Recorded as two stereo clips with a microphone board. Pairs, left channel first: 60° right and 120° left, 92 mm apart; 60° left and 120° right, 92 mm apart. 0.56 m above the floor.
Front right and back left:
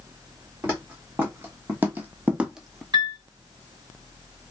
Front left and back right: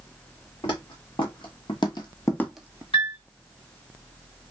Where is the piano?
75° left, 1.5 m.